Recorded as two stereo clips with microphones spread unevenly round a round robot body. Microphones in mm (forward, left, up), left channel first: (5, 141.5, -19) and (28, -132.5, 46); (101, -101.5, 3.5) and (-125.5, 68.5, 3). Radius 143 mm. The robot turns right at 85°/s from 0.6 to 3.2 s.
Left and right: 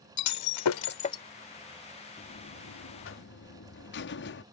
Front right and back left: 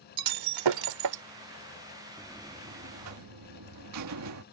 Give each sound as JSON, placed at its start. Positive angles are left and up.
{"t": 0.2, "sound": "breaking glass", "azimuth_deg": 125}
{"t": 2.2, "sound": "a buzzer", "azimuth_deg": 40}